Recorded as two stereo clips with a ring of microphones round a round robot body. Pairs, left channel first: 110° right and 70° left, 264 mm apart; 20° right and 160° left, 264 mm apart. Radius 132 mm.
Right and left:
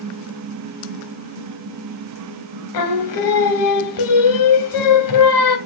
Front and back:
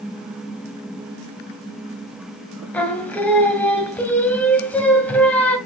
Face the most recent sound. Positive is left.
turn(degrees=-105)